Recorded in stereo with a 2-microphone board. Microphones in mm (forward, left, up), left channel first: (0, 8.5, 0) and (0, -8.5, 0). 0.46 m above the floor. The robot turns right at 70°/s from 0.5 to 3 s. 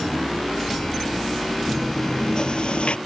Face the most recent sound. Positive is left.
turn(degrees=85)